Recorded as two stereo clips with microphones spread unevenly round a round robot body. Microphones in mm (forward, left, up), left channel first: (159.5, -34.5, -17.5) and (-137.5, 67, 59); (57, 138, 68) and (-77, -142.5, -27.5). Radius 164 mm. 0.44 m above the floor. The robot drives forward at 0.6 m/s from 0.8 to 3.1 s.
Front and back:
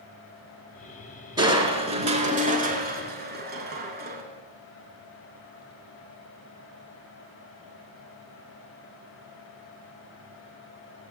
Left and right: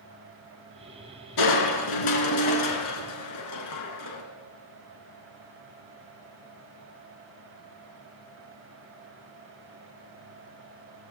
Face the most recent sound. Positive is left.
turn(degrees=100)